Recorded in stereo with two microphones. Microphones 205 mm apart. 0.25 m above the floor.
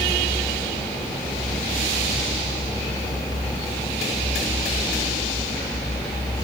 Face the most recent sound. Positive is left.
No sound to turn to.